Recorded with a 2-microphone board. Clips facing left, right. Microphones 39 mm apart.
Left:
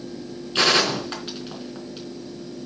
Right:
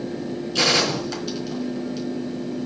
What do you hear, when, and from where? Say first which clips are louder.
0.6 s a gunshot: left 1 dB; 30° left (ahead or behind), 3.5 m